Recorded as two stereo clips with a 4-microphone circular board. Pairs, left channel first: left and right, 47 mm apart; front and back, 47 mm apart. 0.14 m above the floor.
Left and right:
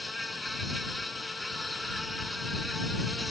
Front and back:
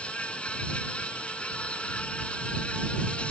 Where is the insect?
Straight ahead.